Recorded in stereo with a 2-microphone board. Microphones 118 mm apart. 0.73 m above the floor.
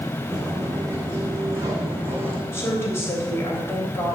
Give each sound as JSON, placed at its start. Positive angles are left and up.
{"t": 0.3, "sound": "footsteps", "side_deg": -30, "distance_m": 4.0}
{"t": 2.5, "sound": "a woman speaking", "side_deg": 20, "distance_m": 3.5}